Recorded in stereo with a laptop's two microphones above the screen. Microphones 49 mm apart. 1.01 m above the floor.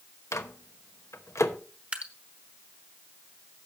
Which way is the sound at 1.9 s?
25° right (ahead or behind).